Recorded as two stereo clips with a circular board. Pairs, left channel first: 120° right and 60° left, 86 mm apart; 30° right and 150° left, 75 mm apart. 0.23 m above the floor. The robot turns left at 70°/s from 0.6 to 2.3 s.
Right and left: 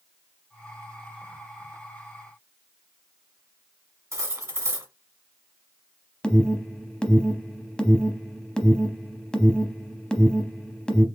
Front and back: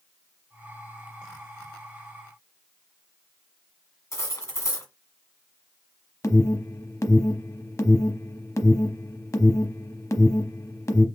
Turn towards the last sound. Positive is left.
turn(degrees=-45)